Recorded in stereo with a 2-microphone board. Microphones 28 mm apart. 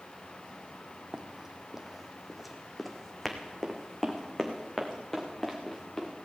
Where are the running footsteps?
25° right (ahead or behind), 1.1 m; by 6.1 s 10° left (ahead or behind), 3.5 m.